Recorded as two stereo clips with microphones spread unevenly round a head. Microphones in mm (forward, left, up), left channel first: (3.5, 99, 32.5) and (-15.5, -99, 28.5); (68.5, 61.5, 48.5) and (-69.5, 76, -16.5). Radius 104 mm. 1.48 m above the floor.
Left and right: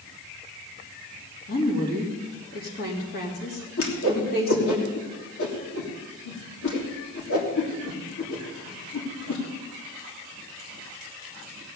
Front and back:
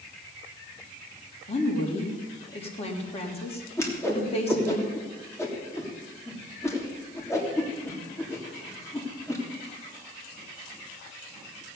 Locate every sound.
1.5 s a woman speaking: 40° left, 3.5 m
3.8 s a whoosh: 65° left, 3 m